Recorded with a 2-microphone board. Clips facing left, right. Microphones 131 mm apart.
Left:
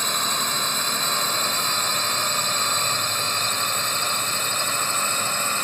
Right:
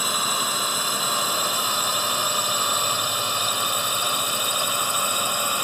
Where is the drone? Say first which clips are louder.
Right 1 dB; 10° right (ahead or behind).